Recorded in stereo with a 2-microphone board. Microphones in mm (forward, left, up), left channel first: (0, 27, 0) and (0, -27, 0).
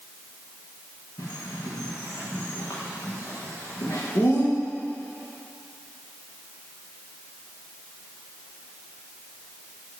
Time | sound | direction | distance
1.2 | a bird | 75° left (ahead or behind) | 7 m